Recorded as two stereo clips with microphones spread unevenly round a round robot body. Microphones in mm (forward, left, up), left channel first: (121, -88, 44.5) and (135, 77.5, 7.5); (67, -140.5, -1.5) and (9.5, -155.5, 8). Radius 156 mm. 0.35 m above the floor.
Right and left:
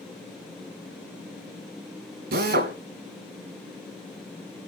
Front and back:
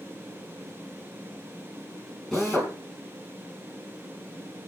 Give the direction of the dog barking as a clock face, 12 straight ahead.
No dog barking in this recording.